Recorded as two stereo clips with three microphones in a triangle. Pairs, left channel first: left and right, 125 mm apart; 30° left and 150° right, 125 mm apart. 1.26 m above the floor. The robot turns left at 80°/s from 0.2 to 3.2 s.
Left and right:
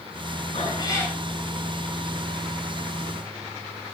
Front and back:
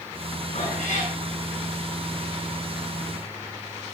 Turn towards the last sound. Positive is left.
turn(degrees=-160)